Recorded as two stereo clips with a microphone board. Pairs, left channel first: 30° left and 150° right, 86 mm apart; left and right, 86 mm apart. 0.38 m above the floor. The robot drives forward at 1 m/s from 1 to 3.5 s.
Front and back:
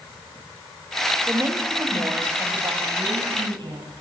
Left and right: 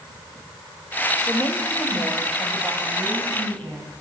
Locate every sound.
1.3 s a woman speaking: 150° left, 1.2 m; by 3.8 s 175° left, 3 m